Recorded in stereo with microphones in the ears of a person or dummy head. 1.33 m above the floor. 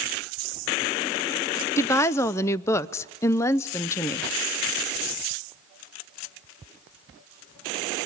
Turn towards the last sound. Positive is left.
turn(degrees=15)  # may be behind; listen again after turning